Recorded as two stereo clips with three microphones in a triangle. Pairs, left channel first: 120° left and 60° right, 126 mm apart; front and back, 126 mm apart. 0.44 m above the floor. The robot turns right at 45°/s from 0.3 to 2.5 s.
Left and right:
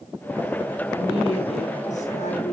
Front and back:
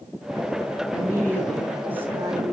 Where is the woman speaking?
60° left, 7 m; by 2.5 s 130° left, 7 m.